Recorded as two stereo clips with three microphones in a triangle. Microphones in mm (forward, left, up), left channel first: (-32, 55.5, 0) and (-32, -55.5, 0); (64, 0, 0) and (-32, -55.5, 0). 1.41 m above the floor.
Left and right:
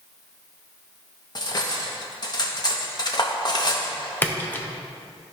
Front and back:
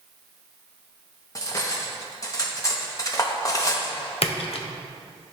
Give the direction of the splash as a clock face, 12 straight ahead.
11 o'clock.